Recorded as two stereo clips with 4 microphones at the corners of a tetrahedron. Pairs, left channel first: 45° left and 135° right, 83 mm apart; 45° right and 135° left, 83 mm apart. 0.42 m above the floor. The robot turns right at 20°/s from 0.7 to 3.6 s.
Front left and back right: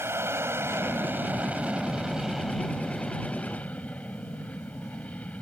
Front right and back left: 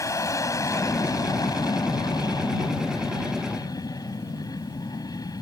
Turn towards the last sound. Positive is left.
turn(degrees=-25)